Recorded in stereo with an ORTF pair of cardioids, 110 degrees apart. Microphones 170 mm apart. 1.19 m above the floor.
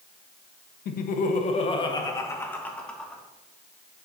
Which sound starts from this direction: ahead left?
Laughter, at 0.8 s.